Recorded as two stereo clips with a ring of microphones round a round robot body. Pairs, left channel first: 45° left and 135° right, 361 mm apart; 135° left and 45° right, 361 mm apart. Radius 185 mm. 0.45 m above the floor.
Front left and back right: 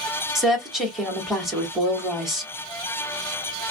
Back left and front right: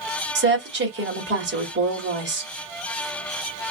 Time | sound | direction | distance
0.3 | a woman speaking | 45° right | 1.4 m